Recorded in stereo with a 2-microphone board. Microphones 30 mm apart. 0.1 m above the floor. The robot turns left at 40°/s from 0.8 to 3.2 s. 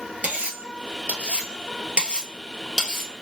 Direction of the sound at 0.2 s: 55° right (ahead or behind).